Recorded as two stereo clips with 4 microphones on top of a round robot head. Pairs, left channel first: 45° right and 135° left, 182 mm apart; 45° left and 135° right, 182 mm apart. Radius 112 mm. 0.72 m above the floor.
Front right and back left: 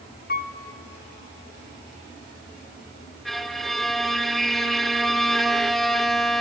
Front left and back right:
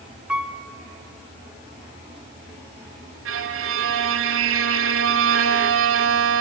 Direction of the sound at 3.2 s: 130° right.